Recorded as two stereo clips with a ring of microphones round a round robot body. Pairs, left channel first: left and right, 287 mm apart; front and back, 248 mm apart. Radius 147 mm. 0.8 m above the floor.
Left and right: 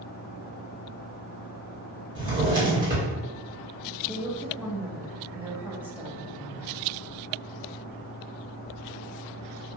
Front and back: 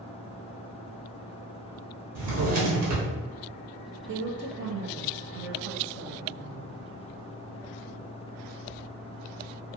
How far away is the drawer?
About 0.8 m.